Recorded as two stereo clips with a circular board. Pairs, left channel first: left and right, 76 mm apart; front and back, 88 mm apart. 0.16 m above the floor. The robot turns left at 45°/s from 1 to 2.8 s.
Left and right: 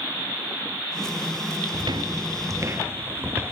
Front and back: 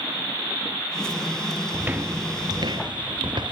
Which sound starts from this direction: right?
Footsteps, at 1.7 s.